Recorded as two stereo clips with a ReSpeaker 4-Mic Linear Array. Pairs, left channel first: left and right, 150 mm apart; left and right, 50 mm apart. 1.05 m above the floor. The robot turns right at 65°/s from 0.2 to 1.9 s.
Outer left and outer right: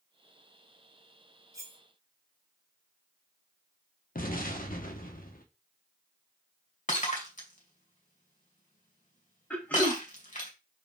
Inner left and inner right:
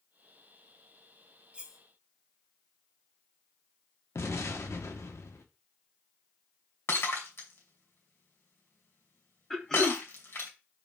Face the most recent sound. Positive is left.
turn(degrees=10)  # may be behind; listen again after turning